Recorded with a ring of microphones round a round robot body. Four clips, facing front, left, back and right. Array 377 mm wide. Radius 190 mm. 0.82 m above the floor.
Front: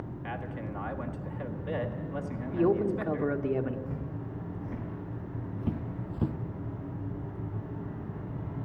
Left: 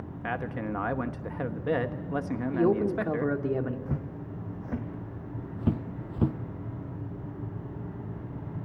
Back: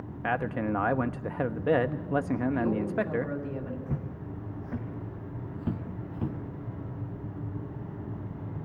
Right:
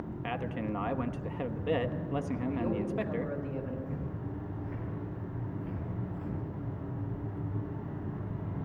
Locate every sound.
0.2 s a man speaking: 165° left, 1.2 m
2.5 s a man speaking: 55° left, 2.5 m
3.9 s footsteps: 120° left, 3 m; by 6.4 s 80° left, 2.0 m